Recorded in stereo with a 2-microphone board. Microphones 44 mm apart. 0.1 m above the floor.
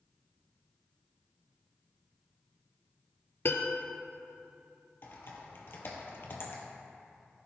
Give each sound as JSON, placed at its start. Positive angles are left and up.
{"t": 3.5, "sound": "a piano", "side_deg": 50, "distance_m": 0.7}
{"t": 5.0, "sound": "typing on a keyboard", "side_deg": 55, "distance_m": 1.5}